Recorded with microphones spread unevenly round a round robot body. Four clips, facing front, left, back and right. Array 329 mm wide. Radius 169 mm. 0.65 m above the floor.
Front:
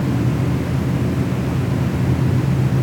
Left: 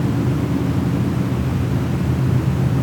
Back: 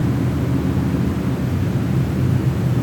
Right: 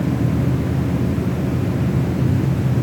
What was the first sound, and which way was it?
Only background noise.